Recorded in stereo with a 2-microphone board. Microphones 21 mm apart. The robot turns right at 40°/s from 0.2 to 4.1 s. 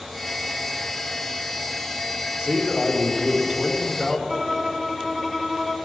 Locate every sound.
2.4 s a man speaking: 70° right, 4.5 m; by 4.2 s straight ahead, 4.5 m
4.3 s a violin: 10° left (ahead or behind), 1.4 m